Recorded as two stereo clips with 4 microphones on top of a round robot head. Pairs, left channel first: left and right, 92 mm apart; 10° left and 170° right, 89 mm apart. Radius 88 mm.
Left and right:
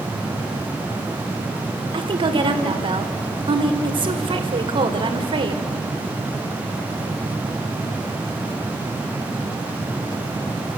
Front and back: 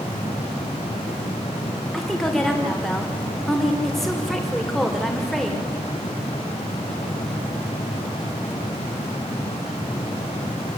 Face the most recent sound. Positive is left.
turn(degrees=-80)